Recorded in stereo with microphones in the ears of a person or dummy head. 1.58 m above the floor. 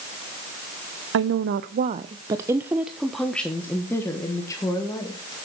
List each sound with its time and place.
1.1 s a woman speaking: 70° right (ahead or behind), 0.7 m; by 5.3 s 20° left (ahead or behind), 2 m